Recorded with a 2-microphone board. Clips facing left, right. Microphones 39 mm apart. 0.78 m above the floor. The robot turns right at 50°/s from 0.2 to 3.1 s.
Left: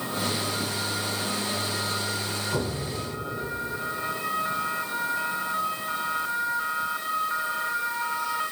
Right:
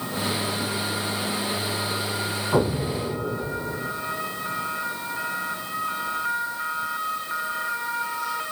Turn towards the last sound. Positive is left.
turn(degrees=-65)  # may be behind; listen again after turning